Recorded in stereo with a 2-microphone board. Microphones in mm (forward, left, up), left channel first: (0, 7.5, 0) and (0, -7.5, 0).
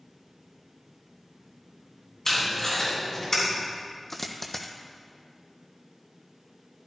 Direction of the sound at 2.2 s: 40° left (ahead or behind).